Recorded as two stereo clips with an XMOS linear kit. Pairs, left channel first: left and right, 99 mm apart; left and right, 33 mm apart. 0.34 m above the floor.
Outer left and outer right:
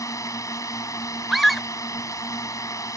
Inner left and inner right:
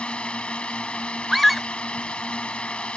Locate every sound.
0.0 s a drone: 35° left (ahead or behind)
1.3 s a scream: centre (ahead or behind)